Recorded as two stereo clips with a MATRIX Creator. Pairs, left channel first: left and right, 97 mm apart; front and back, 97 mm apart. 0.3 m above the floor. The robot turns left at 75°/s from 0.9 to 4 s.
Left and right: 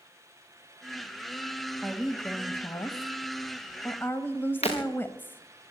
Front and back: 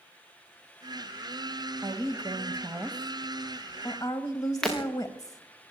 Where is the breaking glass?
85° left, 5.5 m.